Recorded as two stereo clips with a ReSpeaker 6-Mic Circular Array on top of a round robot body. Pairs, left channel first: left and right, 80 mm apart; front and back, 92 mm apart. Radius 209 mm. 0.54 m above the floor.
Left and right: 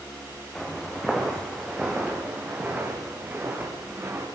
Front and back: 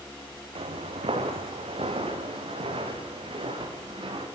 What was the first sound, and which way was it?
Footsteps, 175° left.